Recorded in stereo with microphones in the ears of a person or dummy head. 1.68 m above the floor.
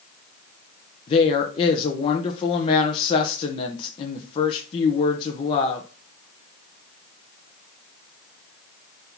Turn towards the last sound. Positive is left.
turn(degrees=30)  # may be behind; listen again after turning